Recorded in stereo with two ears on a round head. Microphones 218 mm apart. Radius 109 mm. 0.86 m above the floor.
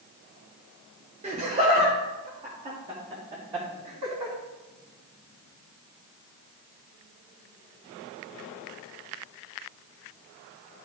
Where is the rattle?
I don't hear a rattle.